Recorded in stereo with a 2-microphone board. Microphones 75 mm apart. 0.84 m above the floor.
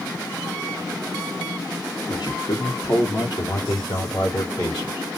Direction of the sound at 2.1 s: 60° left (ahead or behind).